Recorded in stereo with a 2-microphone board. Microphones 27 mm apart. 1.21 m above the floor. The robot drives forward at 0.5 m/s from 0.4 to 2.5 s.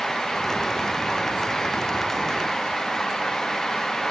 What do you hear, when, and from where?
Only background noise.